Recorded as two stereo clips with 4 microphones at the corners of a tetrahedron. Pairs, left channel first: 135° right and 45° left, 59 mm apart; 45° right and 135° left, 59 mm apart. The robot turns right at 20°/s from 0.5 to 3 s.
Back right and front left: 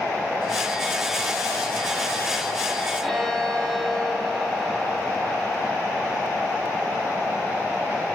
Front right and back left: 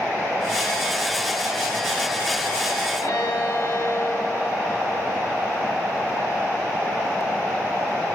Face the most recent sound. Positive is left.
turn(degrees=-45)